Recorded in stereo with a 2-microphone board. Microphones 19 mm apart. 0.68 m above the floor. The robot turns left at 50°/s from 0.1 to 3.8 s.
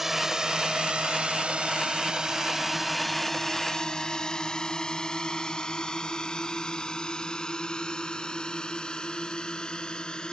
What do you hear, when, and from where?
0.0 s a drone: 15° right (ahead or behind); by 10.3 s 45° left (ahead or behind)